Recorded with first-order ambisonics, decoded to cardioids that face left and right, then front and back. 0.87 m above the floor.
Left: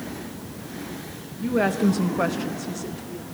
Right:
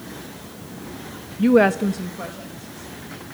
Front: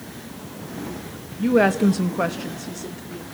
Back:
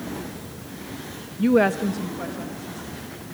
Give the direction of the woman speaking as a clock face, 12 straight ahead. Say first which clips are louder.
Right 7 dB, front 1 dB; 4 o'clock.